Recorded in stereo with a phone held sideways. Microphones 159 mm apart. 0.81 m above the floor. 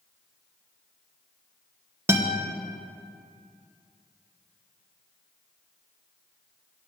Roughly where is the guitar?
Centre.